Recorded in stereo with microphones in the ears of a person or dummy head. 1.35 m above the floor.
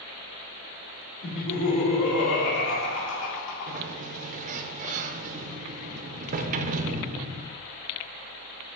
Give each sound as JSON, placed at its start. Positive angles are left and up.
{"t": 1.2, "sound": "laughter", "side_deg": 75, "distance_m": 3.5}
{"t": 3.7, "sound": "a sliding door", "side_deg": -45, "distance_m": 0.6}